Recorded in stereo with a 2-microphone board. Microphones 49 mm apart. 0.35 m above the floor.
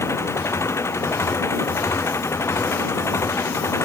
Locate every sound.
0.0 s an engine running: 70° left (ahead or behind)